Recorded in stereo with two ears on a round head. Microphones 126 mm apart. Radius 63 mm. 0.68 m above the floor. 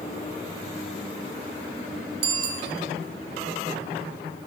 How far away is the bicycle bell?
About 3 m.